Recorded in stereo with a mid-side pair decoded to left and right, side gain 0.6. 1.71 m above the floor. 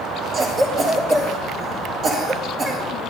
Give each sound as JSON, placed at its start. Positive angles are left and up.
{"t": 0.3, "sound": "a cough", "azimuth_deg": -40, "distance_m": 3.5}